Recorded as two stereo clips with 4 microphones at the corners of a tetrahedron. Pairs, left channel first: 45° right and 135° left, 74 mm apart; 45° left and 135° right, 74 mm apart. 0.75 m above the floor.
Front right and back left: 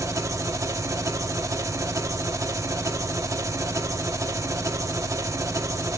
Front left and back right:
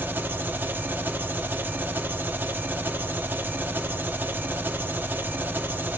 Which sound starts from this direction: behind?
An engine running, at 0.0 s.